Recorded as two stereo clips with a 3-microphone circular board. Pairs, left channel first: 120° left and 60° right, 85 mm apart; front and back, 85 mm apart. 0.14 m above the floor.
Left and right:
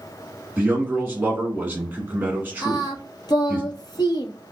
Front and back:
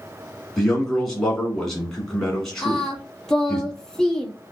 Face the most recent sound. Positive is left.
turn(degrees=85)